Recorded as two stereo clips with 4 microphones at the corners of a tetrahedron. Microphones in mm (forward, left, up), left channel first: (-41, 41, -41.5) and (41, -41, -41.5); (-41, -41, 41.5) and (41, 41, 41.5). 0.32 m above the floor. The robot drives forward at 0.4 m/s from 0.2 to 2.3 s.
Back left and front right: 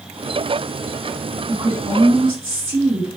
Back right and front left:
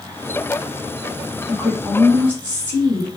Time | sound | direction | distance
1.5 | a woman speaking | 60° right | 2.5 m